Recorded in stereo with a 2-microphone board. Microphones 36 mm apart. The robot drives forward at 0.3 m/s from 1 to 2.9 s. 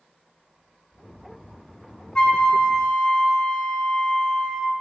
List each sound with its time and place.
2.1 s a flute: 25° left (ahead or behind), 1.0 m; by 4.7 s 20° left (ahead or behind), 1.1 m